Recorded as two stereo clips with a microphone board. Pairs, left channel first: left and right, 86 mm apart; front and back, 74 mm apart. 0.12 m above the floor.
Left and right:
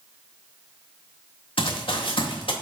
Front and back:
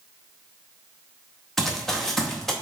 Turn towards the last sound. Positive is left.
turn(degrees=85)